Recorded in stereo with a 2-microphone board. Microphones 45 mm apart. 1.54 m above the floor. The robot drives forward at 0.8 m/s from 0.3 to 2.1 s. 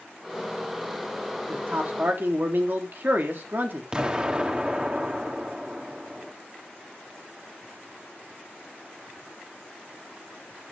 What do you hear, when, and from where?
1.5 s a man speaking: 45° right (ahead or behind), 3.5 m; by 3.8 s 50° right (ahead or behind), 3.5 m
3.9 s an explosion: 25° right (ahead or behind), 1.5 m